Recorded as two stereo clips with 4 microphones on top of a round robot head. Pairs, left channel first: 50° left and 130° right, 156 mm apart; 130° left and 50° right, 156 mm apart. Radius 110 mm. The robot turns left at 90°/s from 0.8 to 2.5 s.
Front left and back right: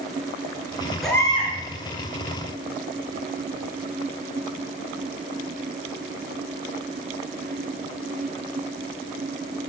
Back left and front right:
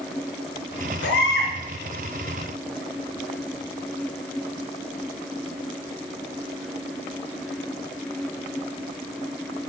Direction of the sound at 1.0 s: 140° left.